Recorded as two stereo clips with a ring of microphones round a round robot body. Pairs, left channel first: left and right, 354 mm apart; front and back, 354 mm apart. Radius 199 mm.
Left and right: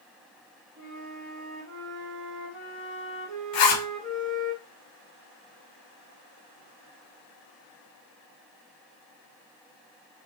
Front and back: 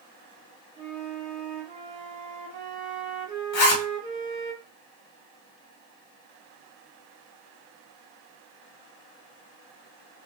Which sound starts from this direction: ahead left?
A zipper, at 3.5 s.